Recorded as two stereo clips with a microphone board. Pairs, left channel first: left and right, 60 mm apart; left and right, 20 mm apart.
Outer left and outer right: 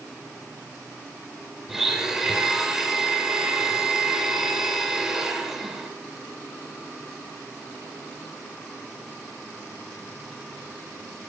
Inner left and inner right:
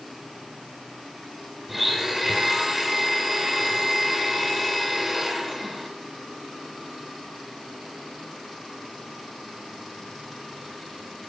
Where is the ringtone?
No ringtone in this recording.